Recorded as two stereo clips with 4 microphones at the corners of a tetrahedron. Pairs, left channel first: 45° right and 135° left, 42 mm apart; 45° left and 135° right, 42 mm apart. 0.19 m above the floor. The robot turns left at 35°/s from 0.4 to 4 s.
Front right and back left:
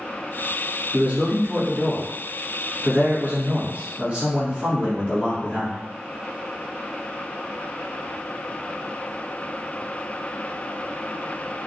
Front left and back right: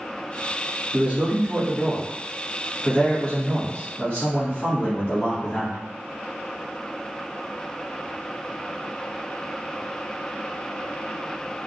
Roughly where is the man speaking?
Behind.